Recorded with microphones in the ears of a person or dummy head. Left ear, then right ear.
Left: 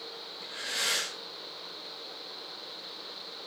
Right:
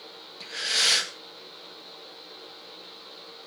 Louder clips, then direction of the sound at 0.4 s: Right 8 dB; 45° right (ahead or behind).